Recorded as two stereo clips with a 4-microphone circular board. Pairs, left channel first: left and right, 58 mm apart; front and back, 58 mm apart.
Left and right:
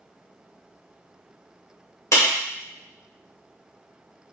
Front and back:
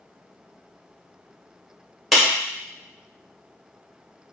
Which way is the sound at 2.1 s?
90° left.